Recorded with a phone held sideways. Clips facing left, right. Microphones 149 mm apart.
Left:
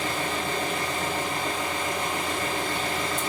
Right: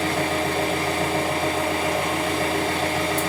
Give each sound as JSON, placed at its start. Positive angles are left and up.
{"t": 0.0, "sound": "an engine running", "side_deg": -65, "distance_m": 4.5}